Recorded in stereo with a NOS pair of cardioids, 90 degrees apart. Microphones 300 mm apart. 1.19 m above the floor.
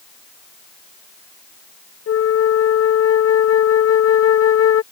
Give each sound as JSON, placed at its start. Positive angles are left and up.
{"t": 2.1, "sound": "a flute", "azimuth_deg": 45}